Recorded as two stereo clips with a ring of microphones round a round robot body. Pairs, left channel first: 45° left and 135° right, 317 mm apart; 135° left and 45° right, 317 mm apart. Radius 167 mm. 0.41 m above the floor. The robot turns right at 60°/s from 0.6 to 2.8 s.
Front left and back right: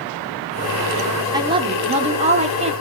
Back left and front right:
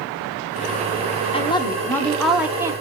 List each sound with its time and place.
1.3 s a woman speaking: 170° left, 0.8 m; by 2.7 s 105° right, 0.8 m